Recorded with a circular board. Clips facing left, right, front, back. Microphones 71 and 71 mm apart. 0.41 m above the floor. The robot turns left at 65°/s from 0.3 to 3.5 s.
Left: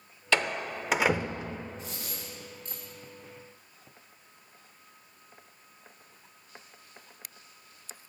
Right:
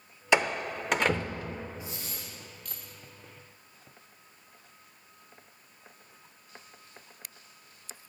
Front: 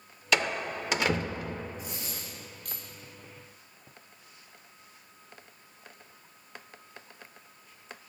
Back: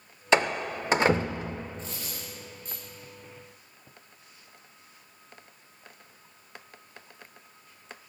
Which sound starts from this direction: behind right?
A door slam, at 0.3 s.